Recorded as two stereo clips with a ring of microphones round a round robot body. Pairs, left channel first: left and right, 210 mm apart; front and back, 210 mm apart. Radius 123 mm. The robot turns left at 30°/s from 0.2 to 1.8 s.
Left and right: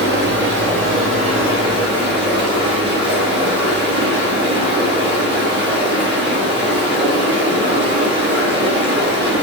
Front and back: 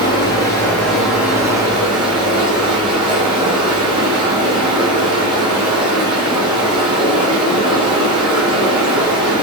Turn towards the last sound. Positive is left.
turn(degrees=-115)